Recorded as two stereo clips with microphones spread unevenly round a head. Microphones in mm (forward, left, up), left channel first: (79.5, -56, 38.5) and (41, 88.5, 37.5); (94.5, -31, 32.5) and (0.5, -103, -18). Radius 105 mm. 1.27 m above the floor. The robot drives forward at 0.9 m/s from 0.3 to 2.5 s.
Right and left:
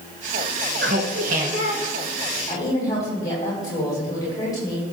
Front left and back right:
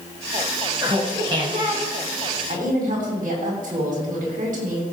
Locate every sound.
0.8 s laughter: 140° left, 1.1 m; by 2.4 s 165° left, 2.5 m
2.5 s a woman speaking: 145° right, 5.5 m